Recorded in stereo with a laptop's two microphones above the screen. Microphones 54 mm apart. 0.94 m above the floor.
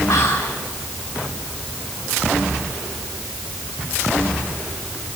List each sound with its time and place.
0.1 s whispering: 75° left (ahead or behind), 3 m